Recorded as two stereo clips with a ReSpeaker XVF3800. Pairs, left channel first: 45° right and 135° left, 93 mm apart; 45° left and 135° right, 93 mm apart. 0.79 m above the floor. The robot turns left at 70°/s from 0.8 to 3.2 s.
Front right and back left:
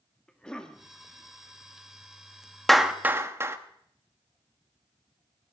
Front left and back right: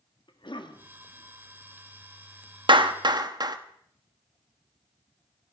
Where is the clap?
130° right, 1.1 m; by 3.6 s 165° right, 1.1 m.